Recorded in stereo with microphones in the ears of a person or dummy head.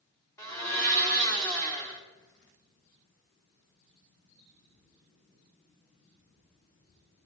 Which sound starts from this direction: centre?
A blender, at 0.4 s.